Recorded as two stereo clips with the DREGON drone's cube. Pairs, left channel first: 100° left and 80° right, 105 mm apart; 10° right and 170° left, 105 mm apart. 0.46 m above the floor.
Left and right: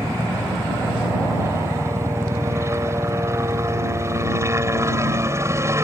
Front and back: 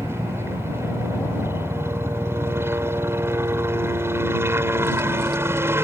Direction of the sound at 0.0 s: 130° right.